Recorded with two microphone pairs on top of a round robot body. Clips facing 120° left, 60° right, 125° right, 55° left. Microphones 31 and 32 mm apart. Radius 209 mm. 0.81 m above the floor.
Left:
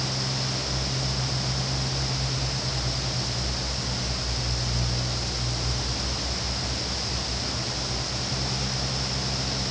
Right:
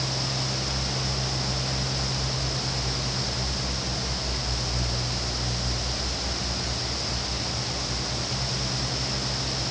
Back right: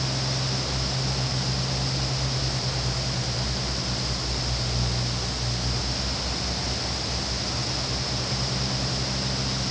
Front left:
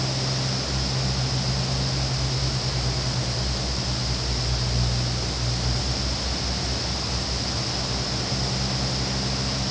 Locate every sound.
Only background noise.